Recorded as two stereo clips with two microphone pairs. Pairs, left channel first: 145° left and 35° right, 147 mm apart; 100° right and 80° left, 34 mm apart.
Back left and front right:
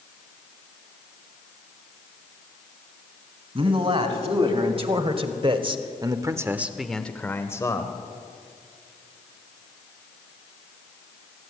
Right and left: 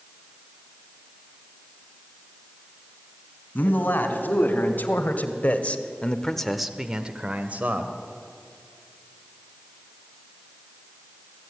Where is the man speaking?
80° right, 3 m; by 8.0 s 85° left, 1.7 m.